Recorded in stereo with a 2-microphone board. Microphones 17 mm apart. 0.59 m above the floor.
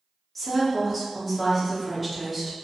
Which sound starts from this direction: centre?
A woman speaking, at 0.3 s.